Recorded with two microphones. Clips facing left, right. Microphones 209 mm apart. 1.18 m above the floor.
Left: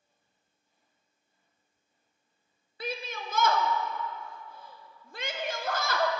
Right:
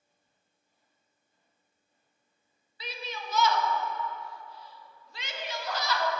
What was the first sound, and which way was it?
A shout, 50° left (ahead or behind).